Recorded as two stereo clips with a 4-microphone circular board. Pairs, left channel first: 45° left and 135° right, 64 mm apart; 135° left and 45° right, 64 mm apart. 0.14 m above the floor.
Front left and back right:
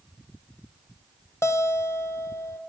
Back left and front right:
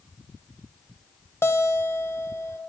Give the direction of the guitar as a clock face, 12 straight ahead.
9 o'clock.